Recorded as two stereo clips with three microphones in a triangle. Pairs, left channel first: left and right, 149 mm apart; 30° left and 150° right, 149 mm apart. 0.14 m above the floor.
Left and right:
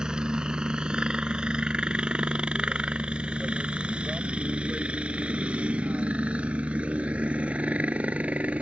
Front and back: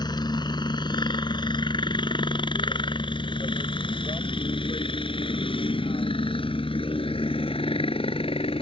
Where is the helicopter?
10° right.